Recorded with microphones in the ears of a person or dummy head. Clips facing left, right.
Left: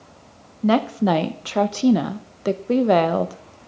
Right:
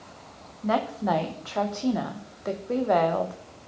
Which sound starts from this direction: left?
A woman speaking, at 0.6 s.